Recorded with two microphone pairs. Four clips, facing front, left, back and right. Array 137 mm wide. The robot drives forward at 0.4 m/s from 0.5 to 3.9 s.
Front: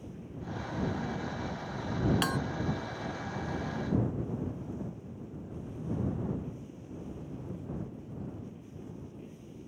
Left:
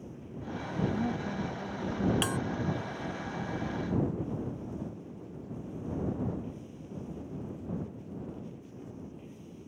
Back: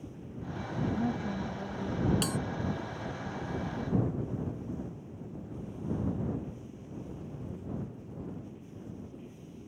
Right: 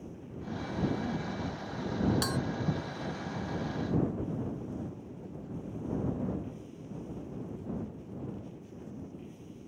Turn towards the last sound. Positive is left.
turn(degrees=135)